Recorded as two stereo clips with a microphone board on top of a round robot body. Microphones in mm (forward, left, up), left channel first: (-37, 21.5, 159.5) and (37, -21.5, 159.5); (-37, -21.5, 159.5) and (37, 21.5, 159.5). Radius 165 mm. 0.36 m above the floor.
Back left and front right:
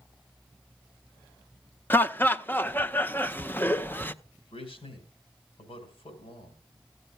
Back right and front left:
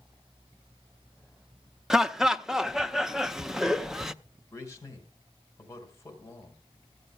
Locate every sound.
1.9 s laughter: 110° left, 0.8 m
4.5 s a man speaking: 150° left, 3.5 m